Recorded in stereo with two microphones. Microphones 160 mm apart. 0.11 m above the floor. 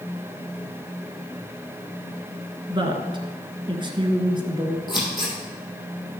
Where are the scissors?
30° left (ahead or behind), 4 m.